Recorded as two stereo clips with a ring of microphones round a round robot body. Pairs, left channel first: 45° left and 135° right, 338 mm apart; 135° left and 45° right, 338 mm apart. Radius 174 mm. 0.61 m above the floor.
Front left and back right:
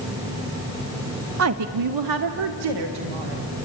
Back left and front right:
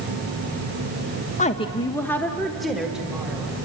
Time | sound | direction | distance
1.4 | a woman speaking | 165° right | 0.8 m